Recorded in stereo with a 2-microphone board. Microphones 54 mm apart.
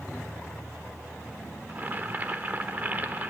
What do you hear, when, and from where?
1.7 s boiling: 30° right (ahead or behind), 1.2 m